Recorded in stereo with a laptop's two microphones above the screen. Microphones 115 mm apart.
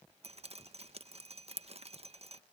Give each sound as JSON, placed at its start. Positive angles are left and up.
{"t": 0.2, "sound": "dripping", "side_deg": -60}